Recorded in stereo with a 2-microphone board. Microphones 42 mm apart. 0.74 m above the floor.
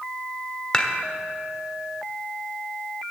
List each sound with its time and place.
0.7 s dishes clattering: 20° left (ahead or behind), 1.2 m